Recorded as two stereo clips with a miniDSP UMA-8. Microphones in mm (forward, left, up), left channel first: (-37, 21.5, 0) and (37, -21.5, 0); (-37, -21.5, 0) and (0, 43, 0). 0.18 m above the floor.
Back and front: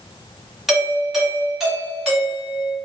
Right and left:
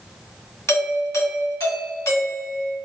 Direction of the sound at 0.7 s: 110° right.